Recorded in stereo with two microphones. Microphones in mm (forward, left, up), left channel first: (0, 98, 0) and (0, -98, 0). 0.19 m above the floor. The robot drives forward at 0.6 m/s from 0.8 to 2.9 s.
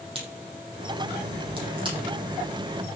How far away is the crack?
About 5.5 m.